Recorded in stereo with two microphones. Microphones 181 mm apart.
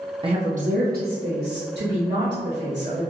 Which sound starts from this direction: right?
A woman speaking, at 0.2 s.